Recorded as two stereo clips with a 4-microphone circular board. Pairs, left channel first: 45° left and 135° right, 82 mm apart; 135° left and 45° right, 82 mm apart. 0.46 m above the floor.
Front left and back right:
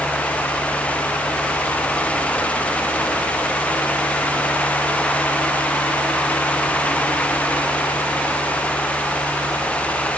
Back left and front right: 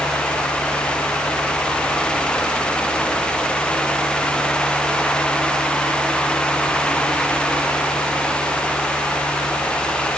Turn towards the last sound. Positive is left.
No sound to turn to.